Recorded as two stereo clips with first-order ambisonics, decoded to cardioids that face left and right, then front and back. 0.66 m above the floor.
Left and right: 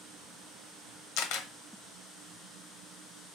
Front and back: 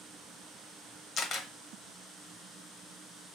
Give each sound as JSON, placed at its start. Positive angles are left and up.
{"t": 1.2, "sound": "a camera shutter", "azimuth_deg": 65, "distance_m": 0.9}